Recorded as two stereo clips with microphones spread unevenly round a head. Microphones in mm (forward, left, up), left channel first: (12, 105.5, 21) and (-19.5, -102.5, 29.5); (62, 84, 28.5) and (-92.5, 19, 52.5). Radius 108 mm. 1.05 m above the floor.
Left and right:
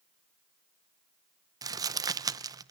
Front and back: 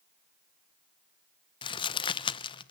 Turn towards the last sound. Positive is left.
turn(degrees=-25)